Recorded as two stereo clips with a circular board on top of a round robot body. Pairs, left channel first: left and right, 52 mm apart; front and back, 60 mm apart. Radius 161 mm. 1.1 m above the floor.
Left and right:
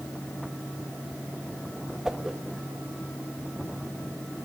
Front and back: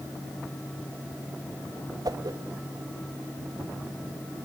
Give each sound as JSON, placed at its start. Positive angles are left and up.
{"t": 2.0, "sound": "a whoosh", "azimuth_deg": -170, "distance_m": 1.3}